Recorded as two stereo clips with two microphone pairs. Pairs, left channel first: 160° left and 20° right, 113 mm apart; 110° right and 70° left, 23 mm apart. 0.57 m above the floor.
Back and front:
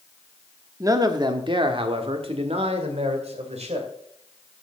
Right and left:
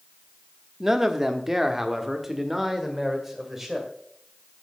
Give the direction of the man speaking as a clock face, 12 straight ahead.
11 o'clock.